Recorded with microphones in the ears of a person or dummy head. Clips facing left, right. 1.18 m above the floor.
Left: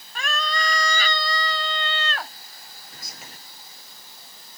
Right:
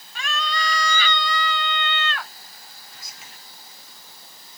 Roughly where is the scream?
Left.